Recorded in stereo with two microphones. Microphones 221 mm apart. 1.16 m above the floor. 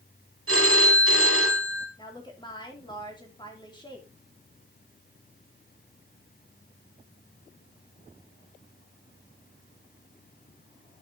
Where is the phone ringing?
75° right (ahead or behind), 3.5 m.